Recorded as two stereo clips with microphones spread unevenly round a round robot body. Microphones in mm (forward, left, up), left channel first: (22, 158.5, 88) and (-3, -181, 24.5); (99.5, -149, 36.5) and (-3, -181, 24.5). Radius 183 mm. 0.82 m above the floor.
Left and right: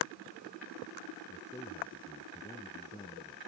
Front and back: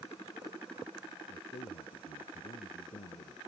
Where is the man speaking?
5° left.